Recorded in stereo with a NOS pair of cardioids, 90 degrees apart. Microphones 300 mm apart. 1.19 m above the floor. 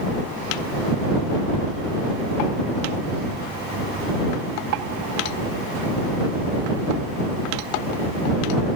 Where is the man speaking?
No man speaking in this recording.